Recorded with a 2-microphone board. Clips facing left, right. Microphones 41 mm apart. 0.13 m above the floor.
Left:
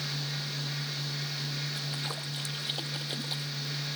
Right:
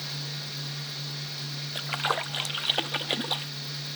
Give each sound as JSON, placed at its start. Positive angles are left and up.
{"t": 1.8, "sound": "a splash", "side_deg": -70}